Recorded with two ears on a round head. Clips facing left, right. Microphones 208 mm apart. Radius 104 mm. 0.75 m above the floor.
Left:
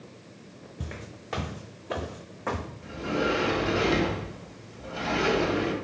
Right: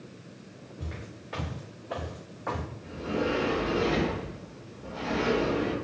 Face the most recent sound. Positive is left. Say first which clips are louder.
# left 1 dB
turn(degrees=75)  # may be behind; listen again after turning